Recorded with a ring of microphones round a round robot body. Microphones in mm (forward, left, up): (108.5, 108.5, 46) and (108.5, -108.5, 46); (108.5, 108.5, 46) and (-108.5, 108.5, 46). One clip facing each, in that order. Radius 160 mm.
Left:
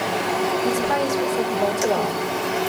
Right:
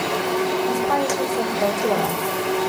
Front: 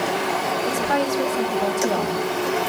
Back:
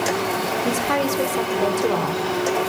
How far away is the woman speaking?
About 2 m.